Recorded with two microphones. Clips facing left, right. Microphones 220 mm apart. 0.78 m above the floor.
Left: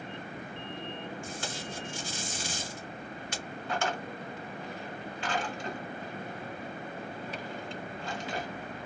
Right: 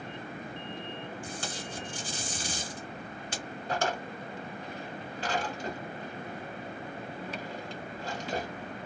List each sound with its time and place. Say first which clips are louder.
1.2 s tape being pulled: even; 35° right (ahead or behind), 1.3 m
3.7 s a drawer: right 2 dB; 40° right (ahead or behind), 1.3 m